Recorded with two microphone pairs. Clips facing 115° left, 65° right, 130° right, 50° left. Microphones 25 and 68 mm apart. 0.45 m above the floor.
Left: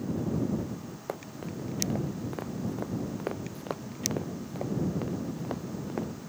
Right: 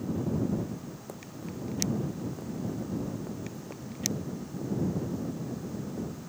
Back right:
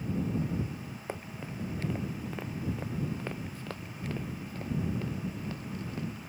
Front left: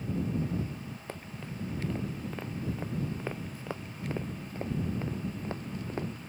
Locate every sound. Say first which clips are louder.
1.1 s running footsteps: left 6 dB, back right 4 dB; 150° left; by 6.1 s 100° left